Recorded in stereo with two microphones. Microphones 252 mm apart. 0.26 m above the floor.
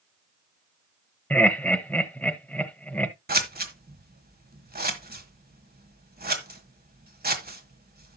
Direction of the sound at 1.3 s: 5° left (ahead or behind).